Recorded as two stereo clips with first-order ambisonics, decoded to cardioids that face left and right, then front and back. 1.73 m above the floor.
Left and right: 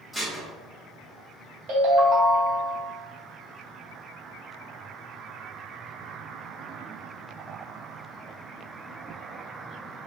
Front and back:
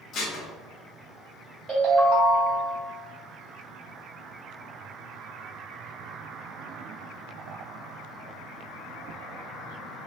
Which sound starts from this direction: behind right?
A ringtone, at 1.7 s.